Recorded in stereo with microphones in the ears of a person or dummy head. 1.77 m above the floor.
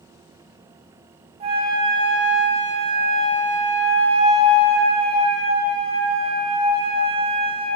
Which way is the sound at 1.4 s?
30° right (ahead or behind).